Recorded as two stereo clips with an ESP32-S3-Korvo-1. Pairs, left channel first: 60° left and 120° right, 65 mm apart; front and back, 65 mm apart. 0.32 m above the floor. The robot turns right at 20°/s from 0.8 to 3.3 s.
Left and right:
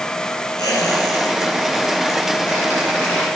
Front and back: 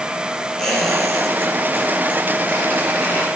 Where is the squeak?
80° left, 5.5 m; by 3.3 s 130° left, 5.5 m.